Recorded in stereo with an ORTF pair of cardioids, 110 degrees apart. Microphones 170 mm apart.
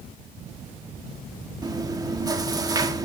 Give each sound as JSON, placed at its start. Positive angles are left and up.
{"t": 1.6, "sound": "chewing", "azimuth_deg": -20, "distance_m": 1.6}